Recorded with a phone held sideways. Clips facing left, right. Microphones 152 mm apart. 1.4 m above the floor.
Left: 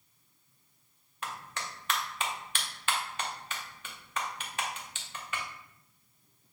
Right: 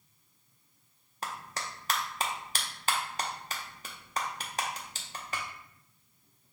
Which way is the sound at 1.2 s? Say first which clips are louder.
Right 1 dB; 35° right (ahead or behind).